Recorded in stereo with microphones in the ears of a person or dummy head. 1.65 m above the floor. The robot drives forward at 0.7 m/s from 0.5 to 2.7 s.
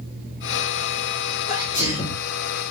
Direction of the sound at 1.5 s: 50° left (ahead or behind).